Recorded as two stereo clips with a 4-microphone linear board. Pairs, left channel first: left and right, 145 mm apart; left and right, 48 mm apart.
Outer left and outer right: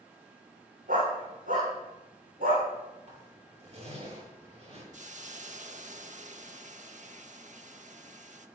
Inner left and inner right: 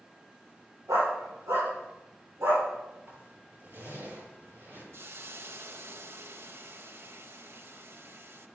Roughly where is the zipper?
Right.